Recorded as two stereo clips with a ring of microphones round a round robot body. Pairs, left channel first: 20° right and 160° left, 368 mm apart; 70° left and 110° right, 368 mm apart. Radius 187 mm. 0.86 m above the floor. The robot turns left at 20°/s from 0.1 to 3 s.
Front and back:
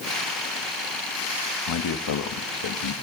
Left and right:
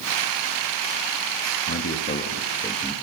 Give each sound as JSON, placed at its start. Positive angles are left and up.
{"t": 1.7, "sound": "a man speaking", "azimuth_deg": 10, "distance_m": 1.3}